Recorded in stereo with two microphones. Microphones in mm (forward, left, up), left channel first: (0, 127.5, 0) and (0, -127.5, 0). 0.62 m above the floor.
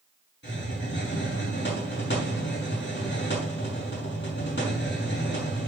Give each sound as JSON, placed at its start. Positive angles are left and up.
{"t": 0.4, "sound": "a hiss", "side_deg": 45, "distance_m": 5.5}